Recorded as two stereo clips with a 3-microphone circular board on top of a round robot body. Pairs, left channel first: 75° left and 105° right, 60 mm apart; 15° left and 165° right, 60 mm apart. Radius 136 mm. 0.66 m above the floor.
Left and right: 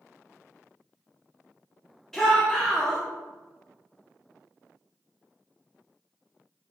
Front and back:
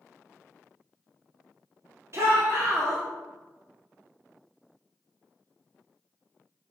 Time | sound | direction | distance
2.1 | a shout | 160° left | 2.5 m